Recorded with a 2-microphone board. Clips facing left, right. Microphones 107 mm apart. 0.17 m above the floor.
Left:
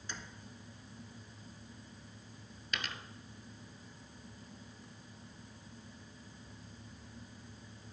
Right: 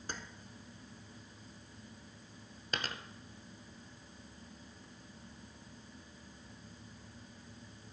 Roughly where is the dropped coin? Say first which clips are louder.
Right 2 dB; right.